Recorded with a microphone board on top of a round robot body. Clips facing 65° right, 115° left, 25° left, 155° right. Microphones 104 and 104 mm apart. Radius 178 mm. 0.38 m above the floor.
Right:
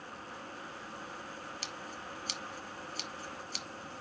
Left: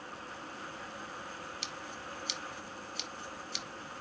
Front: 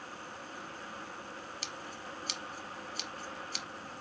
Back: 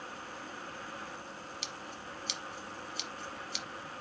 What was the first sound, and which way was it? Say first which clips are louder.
Scissors: even, even; 20° right.